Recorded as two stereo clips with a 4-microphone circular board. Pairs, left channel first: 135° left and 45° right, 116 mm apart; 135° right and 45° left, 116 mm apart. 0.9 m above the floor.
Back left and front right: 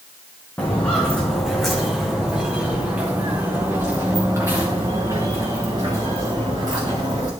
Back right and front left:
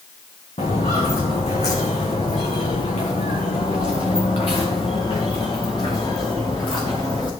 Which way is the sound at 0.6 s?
150° right.